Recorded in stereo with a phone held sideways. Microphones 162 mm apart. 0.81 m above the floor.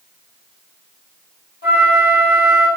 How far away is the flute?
About 1.3 m.